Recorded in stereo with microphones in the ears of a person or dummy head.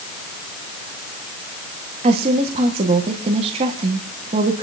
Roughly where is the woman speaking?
Right.